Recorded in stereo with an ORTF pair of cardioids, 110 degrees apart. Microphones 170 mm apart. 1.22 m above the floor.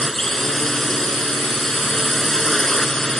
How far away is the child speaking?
No child speaking in this recording.